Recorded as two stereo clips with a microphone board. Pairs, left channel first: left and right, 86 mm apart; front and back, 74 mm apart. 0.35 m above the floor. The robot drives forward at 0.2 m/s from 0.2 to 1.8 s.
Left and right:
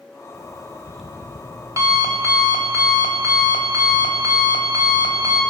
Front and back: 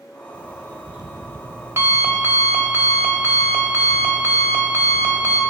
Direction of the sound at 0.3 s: 105° right.